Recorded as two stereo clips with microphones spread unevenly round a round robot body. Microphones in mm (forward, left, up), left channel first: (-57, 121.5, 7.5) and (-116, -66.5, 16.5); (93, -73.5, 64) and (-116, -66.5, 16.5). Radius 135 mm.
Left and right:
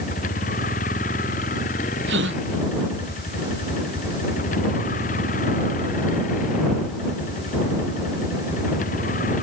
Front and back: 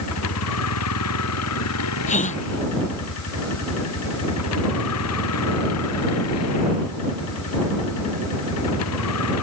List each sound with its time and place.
0.0 s a vehicle: 10° left
2.1 s a gasp: 55° right